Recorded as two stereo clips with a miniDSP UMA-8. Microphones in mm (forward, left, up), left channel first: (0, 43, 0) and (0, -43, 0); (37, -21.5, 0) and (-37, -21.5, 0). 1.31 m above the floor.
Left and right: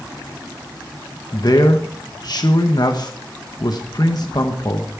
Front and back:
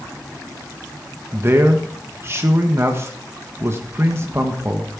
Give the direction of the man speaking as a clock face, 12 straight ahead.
8 o'clock.